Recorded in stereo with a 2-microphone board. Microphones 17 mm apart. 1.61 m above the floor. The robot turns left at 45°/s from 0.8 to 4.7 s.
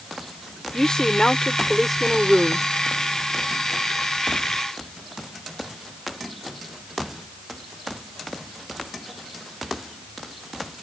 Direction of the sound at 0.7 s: 55° left.